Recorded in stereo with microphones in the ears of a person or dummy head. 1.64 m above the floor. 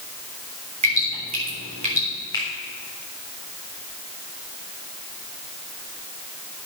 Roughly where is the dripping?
Right.